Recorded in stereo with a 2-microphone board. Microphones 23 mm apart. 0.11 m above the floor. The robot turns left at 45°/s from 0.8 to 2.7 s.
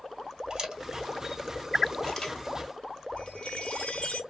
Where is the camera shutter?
30° right (ahead or behind), 1.5 m; by 2.4 s 30° left (ahead or behind), 1.5 m.